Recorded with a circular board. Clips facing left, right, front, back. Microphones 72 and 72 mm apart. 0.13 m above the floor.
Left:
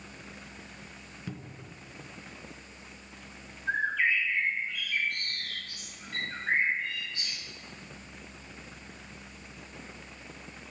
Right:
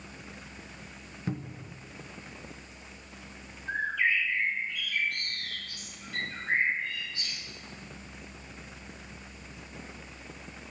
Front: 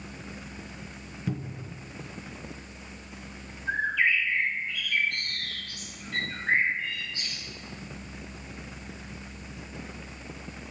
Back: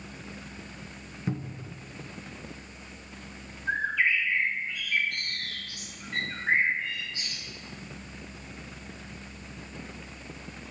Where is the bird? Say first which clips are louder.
Left 1 dB, front 1 dB; 110° left, 4 m.